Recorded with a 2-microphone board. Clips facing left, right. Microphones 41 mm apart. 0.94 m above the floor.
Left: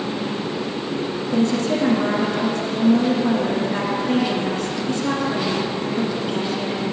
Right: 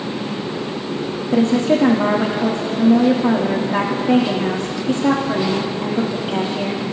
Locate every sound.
1.3 s a woman speaking: 55° right (ahead or behind), 1.5 m